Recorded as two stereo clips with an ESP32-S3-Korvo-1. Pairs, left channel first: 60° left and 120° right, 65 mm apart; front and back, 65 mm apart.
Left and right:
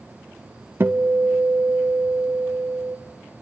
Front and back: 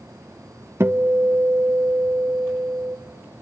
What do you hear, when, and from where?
0.8 s a guitar: 155° right, 0.5 m